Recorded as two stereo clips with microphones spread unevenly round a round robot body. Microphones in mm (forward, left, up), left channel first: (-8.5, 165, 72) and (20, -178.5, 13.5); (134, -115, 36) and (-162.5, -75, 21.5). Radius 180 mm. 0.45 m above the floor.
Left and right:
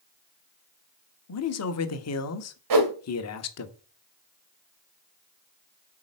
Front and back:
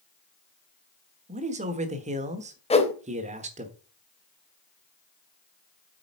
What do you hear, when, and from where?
1.3 s a man speaking: 125° left, 1.2 m
2.7 s a whoosh: 80° right, 2 m